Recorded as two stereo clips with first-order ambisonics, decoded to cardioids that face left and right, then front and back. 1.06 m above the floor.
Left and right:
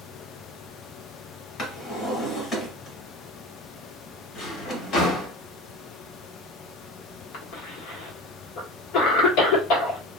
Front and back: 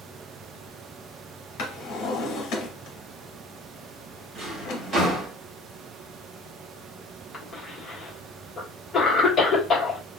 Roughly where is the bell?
I don't hear a bell.